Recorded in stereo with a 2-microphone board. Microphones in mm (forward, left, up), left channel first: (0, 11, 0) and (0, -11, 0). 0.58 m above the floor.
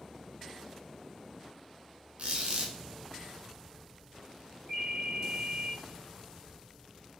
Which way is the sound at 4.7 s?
70° right (ahead or behind).